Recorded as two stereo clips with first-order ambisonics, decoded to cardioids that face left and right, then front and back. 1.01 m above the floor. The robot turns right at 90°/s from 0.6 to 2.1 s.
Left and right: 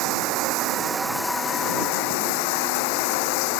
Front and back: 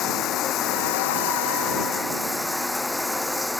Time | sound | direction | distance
0.0 | running water | 50° right | ?